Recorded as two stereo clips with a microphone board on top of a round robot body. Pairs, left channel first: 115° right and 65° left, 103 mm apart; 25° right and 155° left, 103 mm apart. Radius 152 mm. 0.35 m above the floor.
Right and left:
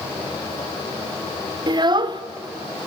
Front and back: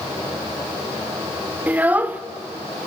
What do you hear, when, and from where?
1.7 s a child speaking: 90° left, 1.3 m